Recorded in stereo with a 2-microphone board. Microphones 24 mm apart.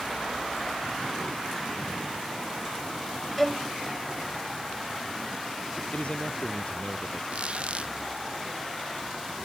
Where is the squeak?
55° right (ahead or behind).